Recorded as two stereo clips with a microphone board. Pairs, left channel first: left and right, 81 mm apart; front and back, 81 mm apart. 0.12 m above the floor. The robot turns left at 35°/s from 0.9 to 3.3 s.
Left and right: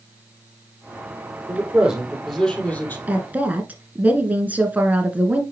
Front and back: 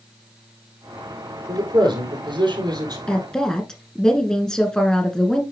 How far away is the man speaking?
About 3.5 m.